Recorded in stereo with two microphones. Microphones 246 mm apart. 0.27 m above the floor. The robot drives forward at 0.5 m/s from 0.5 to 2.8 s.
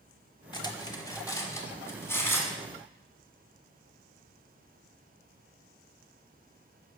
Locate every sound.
0.5 s cutlery clinking: 20° left (ahead or behind), 0.9 m; by 2.6 s 10° left (ahead or behind), 1.7 m